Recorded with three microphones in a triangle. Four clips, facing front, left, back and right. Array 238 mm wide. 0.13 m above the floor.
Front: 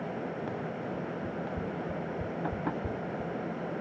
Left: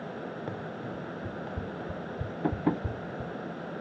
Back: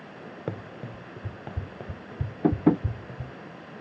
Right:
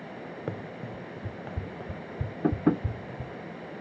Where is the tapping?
160° right.